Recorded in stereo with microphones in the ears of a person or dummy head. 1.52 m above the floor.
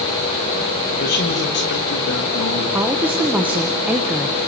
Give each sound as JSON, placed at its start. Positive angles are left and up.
{"t": 1.0, "sound": "a man speaking", "side_deg": 45, "distance_m": 2.0}
{"t": 2.7, "sound": "a woman speaking", "side_deg": -5, "distance_m": 1.4}